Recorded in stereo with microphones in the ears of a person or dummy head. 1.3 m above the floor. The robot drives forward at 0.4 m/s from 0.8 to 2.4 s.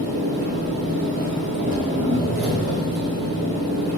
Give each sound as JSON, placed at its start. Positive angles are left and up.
{"t": 0.0, "sound": "an engine running", "side_deg": -50, "distance_m": 1.2}